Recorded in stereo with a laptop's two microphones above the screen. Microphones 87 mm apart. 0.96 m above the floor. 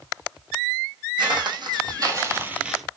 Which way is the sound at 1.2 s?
65° right (ahead or behind).